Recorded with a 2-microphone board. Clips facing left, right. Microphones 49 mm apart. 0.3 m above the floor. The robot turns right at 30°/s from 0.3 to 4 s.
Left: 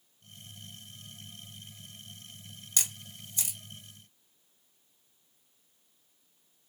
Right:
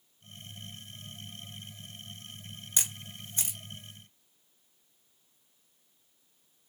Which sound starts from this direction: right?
A camera shutter, at 2.8 s.